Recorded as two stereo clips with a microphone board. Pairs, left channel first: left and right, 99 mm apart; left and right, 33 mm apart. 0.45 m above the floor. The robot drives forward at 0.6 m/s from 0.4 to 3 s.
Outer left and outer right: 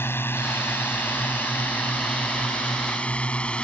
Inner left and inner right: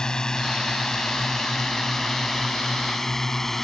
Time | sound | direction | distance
0.0 | a drone | 25° left (ahead or behind) | ?